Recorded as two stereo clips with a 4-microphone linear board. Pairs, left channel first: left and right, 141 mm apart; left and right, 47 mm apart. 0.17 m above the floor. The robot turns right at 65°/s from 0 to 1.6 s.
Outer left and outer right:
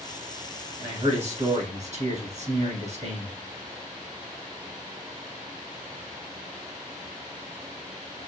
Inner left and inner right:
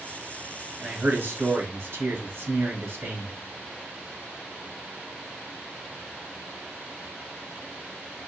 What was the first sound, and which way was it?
A man speaking, 145° right.